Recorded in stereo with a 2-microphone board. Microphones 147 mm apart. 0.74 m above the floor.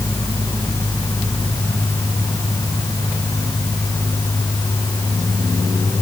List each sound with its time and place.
Only background noise.